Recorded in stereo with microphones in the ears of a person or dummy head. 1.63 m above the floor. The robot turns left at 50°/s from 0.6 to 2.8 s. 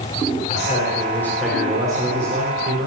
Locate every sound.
0.5 s a man speaking: 40° left, 6 m; by 2.9 s 70° right, 6 m